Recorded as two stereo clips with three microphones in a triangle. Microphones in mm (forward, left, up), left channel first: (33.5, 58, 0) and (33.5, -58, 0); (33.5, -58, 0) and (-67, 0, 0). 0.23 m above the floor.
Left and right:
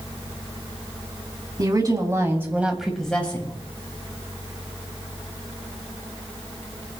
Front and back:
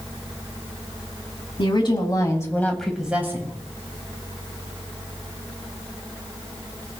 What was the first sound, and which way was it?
A woman speaking, 50° right.